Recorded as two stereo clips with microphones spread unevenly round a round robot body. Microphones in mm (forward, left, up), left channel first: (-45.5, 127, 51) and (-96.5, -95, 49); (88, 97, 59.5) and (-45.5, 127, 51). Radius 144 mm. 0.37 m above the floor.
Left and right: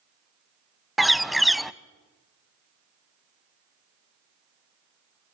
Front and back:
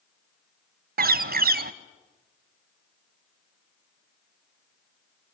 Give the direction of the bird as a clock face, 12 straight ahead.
6 o'clock.